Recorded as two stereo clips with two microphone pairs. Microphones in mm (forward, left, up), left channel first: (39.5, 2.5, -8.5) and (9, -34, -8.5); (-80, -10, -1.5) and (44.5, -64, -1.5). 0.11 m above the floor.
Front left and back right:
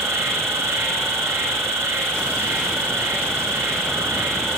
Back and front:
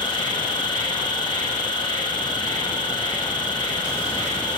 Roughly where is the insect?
Behind right.